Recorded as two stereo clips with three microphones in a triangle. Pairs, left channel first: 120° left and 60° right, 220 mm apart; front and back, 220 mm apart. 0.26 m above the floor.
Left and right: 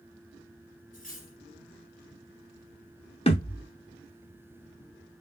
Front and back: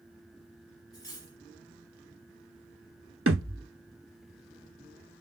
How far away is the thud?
About 1.0 m.